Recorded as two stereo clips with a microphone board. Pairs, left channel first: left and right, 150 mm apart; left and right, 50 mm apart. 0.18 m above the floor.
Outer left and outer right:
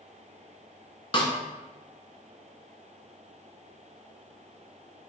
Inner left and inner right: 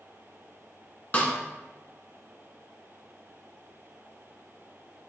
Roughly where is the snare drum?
Left.